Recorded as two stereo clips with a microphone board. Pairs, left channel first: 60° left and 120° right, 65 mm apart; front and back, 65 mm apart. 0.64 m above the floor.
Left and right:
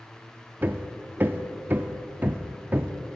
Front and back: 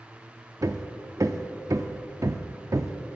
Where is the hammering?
175° right, 0.5 m.